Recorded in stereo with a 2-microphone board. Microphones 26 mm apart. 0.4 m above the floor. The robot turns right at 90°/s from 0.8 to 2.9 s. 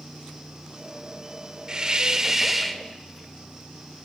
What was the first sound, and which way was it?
A hiss, 95° right.